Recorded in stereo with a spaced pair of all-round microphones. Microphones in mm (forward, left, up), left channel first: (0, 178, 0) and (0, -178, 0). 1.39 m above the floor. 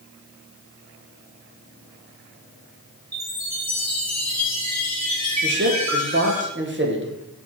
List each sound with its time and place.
3.1 s a chime: 50° right (ahead or behind), 2.5 m
5.4 s a man speaking: 35° right (ahead or behind), 1.4 m